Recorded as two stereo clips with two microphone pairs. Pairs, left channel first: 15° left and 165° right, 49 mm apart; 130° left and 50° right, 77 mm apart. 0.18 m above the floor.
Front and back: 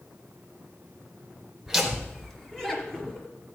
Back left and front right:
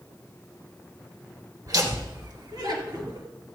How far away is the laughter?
About 2.5 m.